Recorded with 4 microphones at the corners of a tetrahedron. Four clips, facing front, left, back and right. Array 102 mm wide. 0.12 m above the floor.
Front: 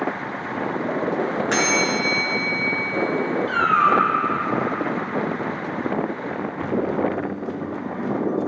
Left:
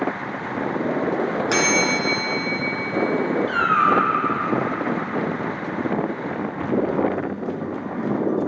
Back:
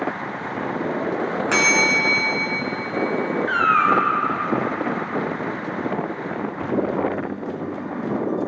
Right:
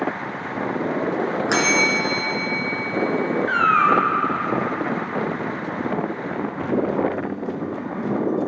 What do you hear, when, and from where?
1.5 s a bell: 65° right, 1.5 m
3.5 s a cat meowing: 40° left, 0.7 m